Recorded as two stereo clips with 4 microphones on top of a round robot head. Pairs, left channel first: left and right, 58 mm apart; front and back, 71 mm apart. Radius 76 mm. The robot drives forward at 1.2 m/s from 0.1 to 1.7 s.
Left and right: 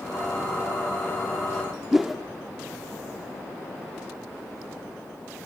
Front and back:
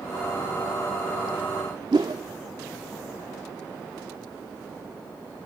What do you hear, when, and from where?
1.9 s a whoosh: 170° right, 0.6 m